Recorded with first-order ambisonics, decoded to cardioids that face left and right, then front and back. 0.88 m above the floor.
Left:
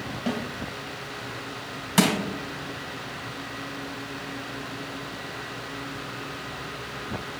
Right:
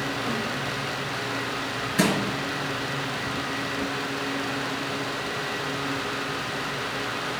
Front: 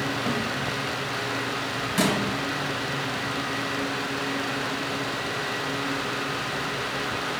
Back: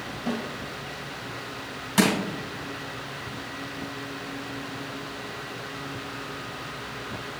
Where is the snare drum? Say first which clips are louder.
Right 2 dB, even; 70° left, 3 m.